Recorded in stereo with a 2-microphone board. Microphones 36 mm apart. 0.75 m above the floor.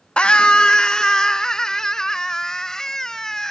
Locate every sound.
0.2 s a scream: 30° left (ahead or behind); by 3.5 s 10° left (ahead or behind)